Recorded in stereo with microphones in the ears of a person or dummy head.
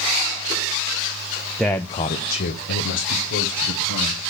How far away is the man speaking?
About 0.6 m.